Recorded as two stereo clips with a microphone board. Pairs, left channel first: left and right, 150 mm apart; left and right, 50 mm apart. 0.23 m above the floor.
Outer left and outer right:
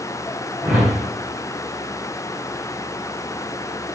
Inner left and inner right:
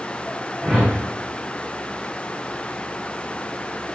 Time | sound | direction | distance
0.6 | a whoosh | 5° right (ahead or behind) | 6 m